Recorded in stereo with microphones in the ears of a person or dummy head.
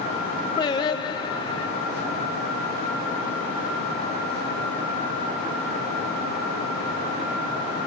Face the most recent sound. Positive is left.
turn(degrees=30)  # may be behind; listen again after turning